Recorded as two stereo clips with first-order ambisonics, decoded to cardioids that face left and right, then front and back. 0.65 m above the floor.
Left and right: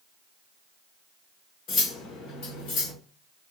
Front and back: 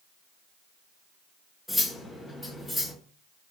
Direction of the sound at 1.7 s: 80° left.